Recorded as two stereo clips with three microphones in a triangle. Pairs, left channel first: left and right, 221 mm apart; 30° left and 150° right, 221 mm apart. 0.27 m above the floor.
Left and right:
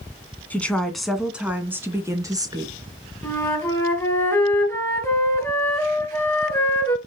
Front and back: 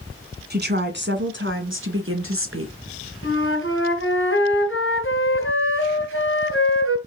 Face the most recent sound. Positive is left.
turn(degrees=10)